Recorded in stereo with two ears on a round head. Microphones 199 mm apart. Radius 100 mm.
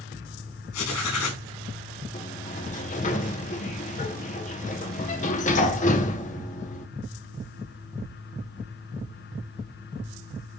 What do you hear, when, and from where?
0.7 s writing: 85° left, 4.5 m
2.1 s a sliding door: 35° left (ahead or behind), 1.2 m